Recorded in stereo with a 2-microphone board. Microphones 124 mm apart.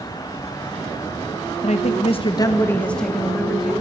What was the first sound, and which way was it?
A woman speaking, 55° left (ahead or behind).